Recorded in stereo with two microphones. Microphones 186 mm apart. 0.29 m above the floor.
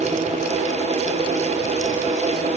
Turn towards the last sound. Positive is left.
No sound to turn to.